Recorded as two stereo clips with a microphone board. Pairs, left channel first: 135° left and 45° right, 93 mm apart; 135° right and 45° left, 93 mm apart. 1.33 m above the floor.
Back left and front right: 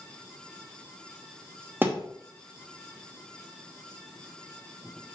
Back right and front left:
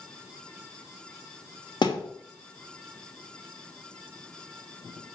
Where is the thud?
110° right, 1.1 m.